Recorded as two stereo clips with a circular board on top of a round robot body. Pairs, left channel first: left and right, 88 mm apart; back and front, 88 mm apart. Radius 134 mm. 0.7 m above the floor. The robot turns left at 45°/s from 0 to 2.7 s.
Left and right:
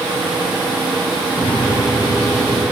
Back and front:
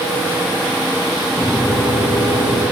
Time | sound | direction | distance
1.4 | a microwave | 120° left | 4.5 m